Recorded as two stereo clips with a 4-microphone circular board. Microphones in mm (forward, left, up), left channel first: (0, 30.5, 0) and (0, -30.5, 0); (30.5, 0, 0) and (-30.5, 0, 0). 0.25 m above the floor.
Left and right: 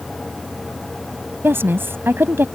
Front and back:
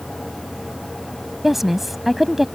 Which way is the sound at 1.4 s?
95° right.